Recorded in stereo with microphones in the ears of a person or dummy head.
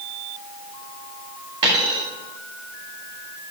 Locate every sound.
1.6 s a dropped coin: 25° right (ahead or behind), 1.5 m